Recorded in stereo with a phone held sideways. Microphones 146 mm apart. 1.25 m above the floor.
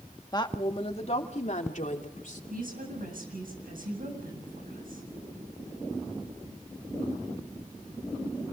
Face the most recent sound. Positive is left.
turn(degrees=-75)  # may be behind; listen again after turning